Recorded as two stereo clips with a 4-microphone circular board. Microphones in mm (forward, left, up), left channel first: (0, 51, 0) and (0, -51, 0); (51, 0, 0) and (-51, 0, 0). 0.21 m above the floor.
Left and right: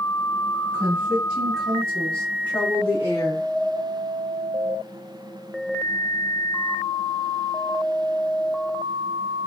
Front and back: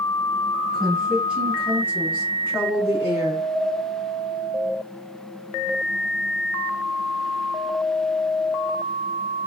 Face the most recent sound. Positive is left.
turn(degrees=135)